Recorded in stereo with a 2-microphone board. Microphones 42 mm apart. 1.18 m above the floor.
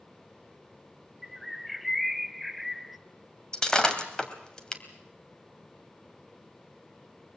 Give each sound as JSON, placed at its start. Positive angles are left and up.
{"t": 1.2, "sound": "a bird", "side_deg": 0, "distance_m": 0.8}
{"t": 3.5, "sound": "breaking glass", "side_deg": 20, "distance_m": 2.0}